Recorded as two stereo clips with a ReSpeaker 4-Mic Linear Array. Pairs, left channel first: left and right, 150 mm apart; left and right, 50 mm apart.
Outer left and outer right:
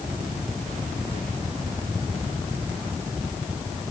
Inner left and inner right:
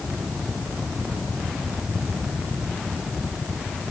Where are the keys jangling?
I don't hear keys jangling.